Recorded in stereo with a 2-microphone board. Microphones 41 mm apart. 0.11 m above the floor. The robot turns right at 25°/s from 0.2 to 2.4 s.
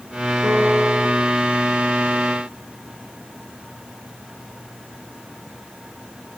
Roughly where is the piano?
Right.